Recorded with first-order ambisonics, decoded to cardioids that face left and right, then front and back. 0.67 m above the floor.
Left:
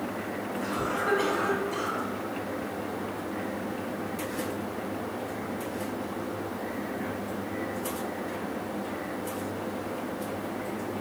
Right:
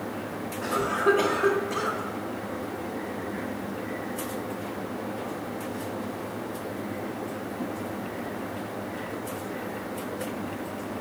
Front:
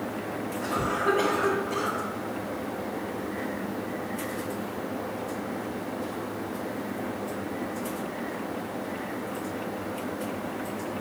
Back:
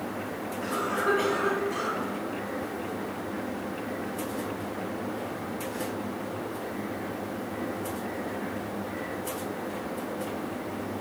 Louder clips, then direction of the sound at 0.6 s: Right 6 dB, front 1 dB; 75° right.